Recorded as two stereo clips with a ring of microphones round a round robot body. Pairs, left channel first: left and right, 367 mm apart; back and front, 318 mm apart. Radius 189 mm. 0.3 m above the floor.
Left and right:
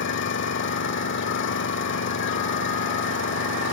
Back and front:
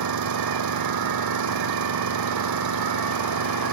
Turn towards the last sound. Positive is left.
turn(degrees=30)